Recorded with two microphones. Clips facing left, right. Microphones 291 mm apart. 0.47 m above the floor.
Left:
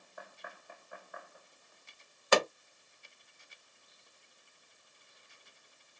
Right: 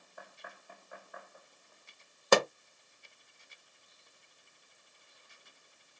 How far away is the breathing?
I don't hear breathing.